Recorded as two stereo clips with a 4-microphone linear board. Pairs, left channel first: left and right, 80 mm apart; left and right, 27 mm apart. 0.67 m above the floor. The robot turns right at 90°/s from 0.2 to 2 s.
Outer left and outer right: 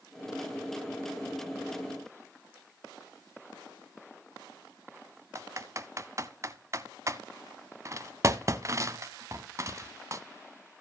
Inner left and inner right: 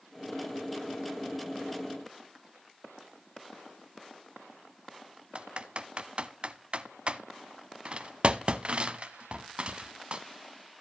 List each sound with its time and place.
5.3 s typing on a keyboard: 40° right (ahead or behind), 0.6 m